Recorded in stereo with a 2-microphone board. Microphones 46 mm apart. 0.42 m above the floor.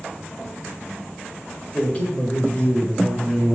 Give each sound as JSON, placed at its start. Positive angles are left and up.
{"t": 1.7, "sound": "a man speaking", "side_deg": 30, "distance_m": 1.8}